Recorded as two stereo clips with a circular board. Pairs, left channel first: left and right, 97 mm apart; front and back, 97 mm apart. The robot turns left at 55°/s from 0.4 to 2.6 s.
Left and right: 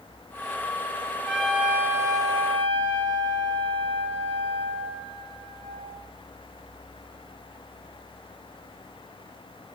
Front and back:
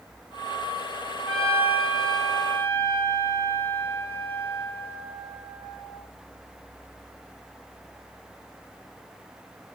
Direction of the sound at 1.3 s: 10° left.